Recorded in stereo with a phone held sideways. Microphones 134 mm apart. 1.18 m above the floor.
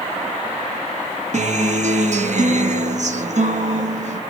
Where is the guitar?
60° right (ahead or behind), 0.8 m.